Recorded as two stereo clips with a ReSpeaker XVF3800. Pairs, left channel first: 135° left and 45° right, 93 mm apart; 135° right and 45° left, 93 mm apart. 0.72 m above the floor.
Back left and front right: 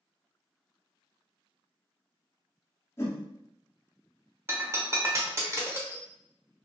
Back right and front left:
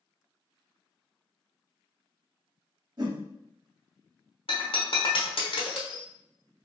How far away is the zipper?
No zipper in this recording.